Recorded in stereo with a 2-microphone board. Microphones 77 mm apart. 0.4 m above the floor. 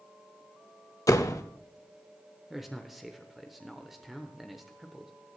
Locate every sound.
1.1 s a door slam: 45° left (ahead or behind), 0.8 m
2.5 s a man speaking: 5° right (ahead or behind), 0.9 m